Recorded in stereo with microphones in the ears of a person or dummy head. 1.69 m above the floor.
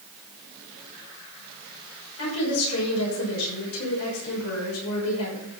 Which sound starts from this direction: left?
A woman speaking, at 2.2 s.